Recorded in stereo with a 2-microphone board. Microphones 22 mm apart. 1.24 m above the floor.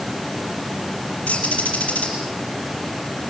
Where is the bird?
80° left, 5.5 m.